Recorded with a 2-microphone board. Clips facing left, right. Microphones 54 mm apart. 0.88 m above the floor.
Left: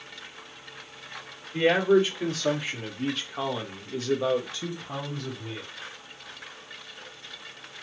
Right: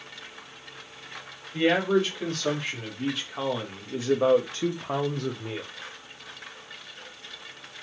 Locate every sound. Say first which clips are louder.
1.5 s a man speaking: left 2 dB; 15° left (ahead or behind), 2 m; by 5.6 s 60° right (ahead or behind), 0.9 m